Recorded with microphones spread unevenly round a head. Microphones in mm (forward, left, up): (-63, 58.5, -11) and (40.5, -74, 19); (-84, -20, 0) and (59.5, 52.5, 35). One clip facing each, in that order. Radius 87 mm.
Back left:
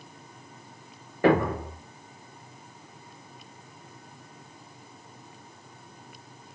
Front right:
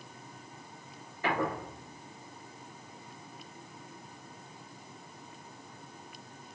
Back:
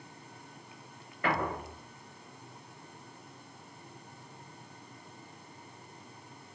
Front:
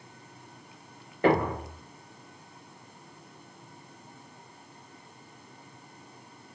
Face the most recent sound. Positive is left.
turn(degrees=80)